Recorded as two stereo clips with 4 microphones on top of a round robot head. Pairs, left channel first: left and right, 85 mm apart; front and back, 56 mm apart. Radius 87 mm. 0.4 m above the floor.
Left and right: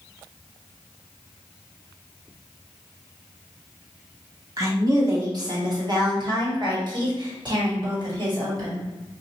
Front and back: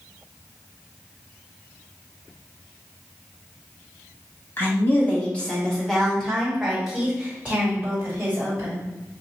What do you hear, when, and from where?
4.6 s a woman speaking: 45° right, 1.7 m; by 8.8 s 125° right, 2.5 m